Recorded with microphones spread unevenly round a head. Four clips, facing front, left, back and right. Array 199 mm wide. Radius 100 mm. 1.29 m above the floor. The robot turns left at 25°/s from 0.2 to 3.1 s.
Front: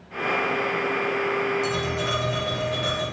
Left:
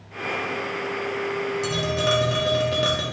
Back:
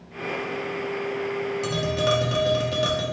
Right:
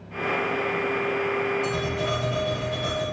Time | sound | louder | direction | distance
1.6 | tapping | left 2 dB, back 2 dB | 145° left | 1.4 m